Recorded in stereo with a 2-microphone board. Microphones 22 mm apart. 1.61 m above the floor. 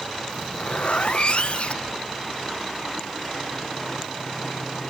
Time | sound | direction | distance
0.3 | a zipper | 55° left (ahead or behind) | 0.9 m